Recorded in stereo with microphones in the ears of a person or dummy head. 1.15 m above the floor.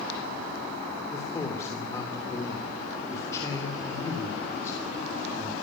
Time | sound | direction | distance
1.1 | a man speaking | 25° left (ahead or behind) | 3.5 m